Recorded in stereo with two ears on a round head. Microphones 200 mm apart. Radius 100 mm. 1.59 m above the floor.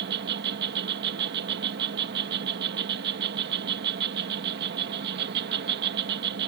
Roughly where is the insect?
Right.